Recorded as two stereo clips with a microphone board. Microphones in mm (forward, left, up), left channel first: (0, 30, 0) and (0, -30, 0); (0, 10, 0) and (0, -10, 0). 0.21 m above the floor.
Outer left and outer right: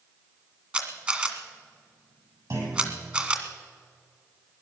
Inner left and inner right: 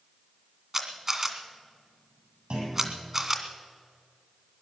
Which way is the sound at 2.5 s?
65° right (ahead or behind).